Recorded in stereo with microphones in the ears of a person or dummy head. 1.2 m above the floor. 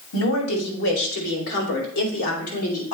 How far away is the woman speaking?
About 2.5 m.